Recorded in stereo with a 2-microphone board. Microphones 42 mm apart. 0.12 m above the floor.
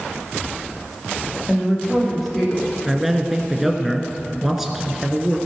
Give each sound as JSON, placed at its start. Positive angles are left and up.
{"t": 1.5, "sound": "a woman speaking", "side_deg": -5, "distance_m": 6.5}
{"t": 2.9, "sound": "a man speaking", "side_deg": -5, "distance_m": 1.6}